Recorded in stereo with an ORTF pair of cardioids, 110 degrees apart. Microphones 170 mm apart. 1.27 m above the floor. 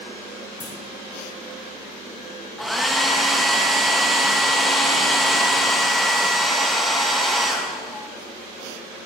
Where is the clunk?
30° left, 2.0 m.